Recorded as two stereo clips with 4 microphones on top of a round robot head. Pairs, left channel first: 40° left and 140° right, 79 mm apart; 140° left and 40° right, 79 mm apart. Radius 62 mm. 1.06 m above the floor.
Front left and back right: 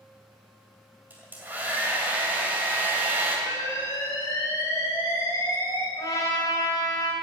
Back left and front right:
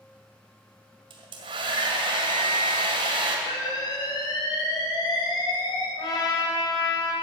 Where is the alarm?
100° left, 3.5 m.